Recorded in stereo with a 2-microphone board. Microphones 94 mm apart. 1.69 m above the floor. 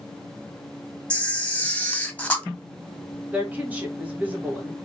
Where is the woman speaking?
15° right (ahead or behind), 1.7 m.